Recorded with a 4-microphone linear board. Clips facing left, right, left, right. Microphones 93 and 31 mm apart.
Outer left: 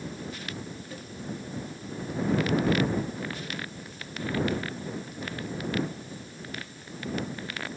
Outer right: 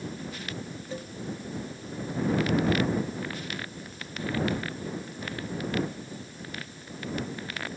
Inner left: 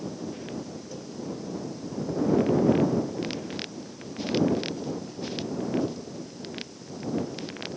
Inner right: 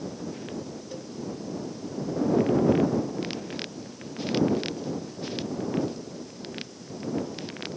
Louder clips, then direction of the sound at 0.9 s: Outer right 4 dB, inner right 1 dB; 25° right (ahead or behind).